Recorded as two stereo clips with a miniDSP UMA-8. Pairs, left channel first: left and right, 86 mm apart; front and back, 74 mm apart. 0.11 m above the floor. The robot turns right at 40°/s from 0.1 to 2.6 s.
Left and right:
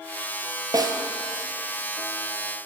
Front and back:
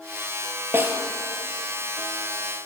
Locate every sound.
0.7 s a snare drum: 125° right, 0.8 m; by 1.0 s 115° right, 0.8 m